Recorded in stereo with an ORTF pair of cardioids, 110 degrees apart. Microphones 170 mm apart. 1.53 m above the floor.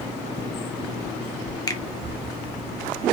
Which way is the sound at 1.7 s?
20° left.